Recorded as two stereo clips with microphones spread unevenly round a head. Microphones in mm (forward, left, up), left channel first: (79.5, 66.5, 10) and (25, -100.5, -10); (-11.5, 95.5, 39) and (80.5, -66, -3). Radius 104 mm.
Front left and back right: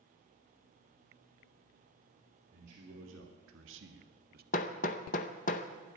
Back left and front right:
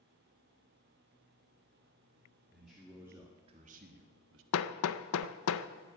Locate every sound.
2.5 s a man speaking: 155° right, 2.5 m; by 4.4 s 70° right, 1.4 m
4.5 s hammering: 125° left, 0.6 m